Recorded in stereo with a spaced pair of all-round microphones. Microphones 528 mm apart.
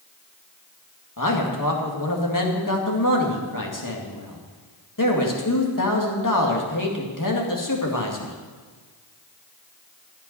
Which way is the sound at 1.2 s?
35° left (ahead or behind).